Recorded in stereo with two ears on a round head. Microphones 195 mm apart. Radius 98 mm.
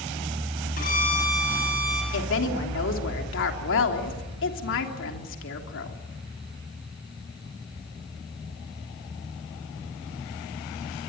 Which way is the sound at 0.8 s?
40° left (ahead or behind).